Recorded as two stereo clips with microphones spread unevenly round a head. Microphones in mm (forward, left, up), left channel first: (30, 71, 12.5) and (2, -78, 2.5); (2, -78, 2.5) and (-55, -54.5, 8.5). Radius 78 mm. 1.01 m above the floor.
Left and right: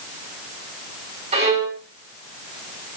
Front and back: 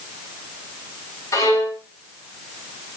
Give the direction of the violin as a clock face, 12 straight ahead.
2 o'clock.